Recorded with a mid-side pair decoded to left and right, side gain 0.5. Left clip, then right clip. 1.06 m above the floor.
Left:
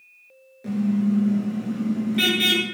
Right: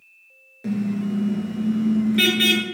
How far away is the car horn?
About 9 m.